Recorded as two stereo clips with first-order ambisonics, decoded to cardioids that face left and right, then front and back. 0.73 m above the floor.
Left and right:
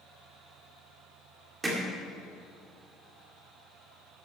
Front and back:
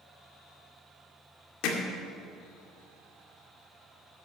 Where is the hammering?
15° right, 2.0 m.